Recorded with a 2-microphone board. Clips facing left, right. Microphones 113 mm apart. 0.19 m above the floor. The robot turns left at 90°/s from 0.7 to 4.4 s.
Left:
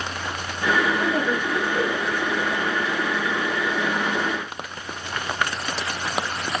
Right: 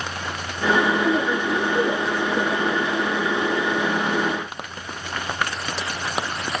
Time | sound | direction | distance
1.0 | a woman speaking | 45° left | 6.5 m